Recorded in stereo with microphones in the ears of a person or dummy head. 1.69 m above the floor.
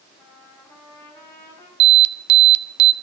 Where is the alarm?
60° right (ahead or behind), 0.5 m.